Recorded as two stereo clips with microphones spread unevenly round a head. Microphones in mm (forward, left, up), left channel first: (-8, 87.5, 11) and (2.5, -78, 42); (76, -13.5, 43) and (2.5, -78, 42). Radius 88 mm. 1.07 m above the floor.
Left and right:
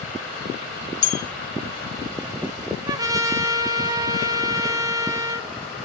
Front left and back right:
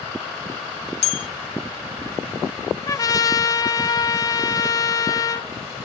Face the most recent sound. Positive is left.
turn(degrees=-15)